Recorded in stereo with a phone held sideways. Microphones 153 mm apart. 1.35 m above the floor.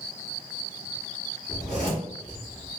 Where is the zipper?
50° left (ahead or behind), 1.9 m.